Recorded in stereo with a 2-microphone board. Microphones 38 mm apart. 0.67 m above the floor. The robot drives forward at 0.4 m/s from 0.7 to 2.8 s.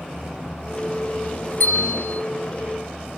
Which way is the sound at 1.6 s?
65° left (ahead or behind).